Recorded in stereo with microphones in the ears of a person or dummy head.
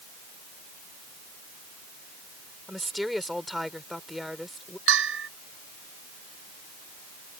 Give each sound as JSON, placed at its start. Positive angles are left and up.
{"t": 2.7, "sound": "a woman speaking", "side_deg": 0}
{"t": 4.9, "sound": "a bell", "side_deg": -75}